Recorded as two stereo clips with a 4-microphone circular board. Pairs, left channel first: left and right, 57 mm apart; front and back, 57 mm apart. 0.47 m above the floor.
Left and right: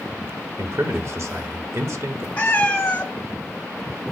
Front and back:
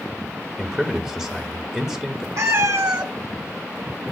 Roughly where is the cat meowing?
Behind left.